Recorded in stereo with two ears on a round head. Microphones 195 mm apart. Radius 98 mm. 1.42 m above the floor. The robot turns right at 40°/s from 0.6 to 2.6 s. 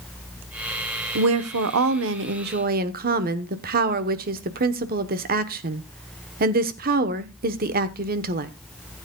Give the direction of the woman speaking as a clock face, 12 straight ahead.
3 o'clock.